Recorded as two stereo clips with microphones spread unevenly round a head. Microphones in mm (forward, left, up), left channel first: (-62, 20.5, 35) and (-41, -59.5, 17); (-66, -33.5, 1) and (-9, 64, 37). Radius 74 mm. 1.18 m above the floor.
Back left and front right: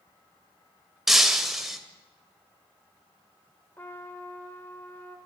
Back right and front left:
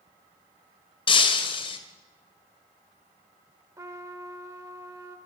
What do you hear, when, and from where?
1.1 s breaking glass: 170° right, 1.7 m
3.8 s a trumpet: 60° left, 1.0 m